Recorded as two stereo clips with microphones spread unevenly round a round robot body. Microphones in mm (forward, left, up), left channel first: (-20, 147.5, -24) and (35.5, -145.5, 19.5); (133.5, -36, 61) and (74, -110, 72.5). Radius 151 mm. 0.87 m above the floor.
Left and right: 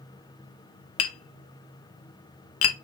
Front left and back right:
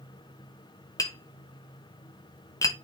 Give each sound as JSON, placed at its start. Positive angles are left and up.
{"t": 1.0, "sound": "tapping", "azimuth_deg": 90, "distance_m": 0.9}